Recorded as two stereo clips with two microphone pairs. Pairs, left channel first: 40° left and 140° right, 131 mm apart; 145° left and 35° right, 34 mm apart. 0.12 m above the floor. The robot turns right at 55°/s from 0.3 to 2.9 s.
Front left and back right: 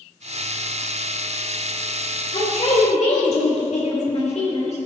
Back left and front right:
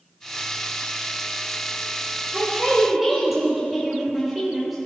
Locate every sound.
2.3 s a man speaking: 20° left, 3.5 m; by 4.8 s 50° left, 3.5 m